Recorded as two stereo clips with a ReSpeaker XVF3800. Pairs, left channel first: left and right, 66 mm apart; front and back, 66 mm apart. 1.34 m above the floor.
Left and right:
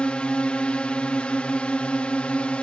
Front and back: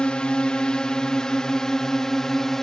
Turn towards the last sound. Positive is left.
turn(degrees=70)